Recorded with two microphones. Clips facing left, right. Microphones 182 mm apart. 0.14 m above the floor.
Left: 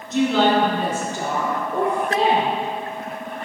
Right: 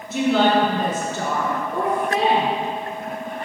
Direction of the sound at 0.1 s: 10° right (ahead or behind).